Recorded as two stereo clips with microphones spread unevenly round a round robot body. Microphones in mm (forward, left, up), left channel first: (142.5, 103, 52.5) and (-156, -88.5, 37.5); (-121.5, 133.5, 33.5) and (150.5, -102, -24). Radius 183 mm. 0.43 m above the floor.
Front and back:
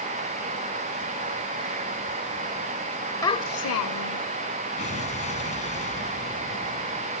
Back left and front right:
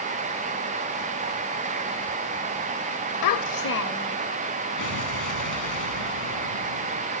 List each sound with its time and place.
3.2 s a child speaking: 115° left; by 4.2 s 55° left
4.8 s an explosion: 100° left